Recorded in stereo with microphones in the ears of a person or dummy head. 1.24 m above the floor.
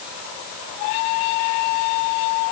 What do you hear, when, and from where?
Only background noise.